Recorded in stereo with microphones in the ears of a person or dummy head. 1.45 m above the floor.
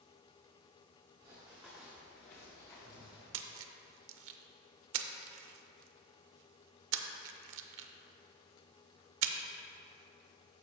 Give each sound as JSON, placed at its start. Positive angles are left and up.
{"t": 1.2, "sound": "running footsteps", "side_deg": -15, "distance_m": 1.4}
{"t": 3.3, "sound": "a splash", "side_deg": -70, "distance_m": 0.7}